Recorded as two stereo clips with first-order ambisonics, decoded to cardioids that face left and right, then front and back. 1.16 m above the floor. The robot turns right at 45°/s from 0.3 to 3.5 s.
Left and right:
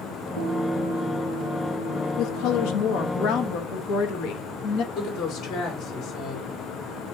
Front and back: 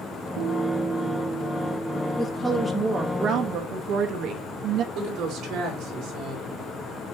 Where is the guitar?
130° right, 3 m; by 2.7 s 25° right, 3 m.